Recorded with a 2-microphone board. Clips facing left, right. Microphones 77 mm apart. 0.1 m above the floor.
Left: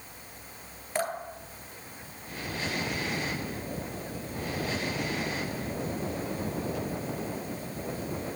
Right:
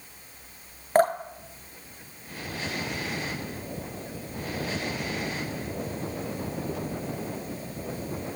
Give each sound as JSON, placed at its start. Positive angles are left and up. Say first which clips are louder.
{"t": 0.9, "sound": "dripping", "louder": "right 10 dB", "side_deg": -45, "distance_m": 0.7}